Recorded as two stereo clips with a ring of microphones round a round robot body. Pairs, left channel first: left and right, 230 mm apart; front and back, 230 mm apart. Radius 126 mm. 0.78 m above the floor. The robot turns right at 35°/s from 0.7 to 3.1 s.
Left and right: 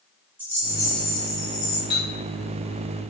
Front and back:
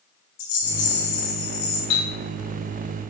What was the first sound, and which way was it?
A rattle, 10° right.